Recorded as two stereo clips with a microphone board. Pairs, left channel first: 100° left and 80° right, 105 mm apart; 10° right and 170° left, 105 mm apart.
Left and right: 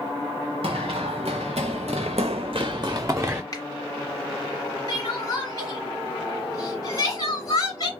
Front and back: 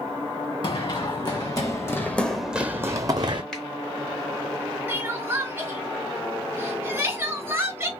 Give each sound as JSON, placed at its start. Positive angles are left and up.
{"t": 0.6, "sound": "running footsteps", "azimuth_deg": -50, "distance_m": 1.2}
{"t": 3.5, "sound": "a finger snap", "azimuth_deg": 70, "distance_m": 1.7}
{"t": 4.9, "sound": "crying", "azimuth_deg": 120, "distance_m": 1.8}